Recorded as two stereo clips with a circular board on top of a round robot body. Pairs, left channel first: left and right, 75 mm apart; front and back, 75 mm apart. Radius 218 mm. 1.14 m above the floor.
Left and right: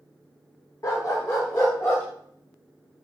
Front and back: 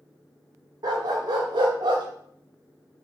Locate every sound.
0.8 s a dog barking: 140° left, 1.5 m; by 2.0 s 150° left, 2.5 m